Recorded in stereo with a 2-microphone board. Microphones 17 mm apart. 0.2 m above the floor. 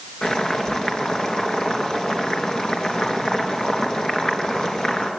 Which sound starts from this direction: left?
Boiling, at 0.2 s.